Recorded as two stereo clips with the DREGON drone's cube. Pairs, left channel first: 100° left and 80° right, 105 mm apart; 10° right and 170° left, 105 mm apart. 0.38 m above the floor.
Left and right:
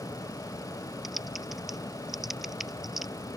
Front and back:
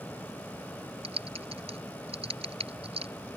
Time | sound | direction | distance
1.0 | typing on a keyboard | 165° right | ?